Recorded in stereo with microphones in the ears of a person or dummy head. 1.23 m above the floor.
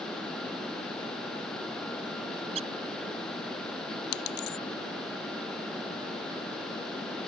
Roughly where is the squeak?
Right.